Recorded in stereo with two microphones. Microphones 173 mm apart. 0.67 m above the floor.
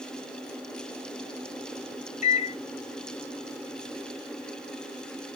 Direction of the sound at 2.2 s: 45° left (ahead or behind).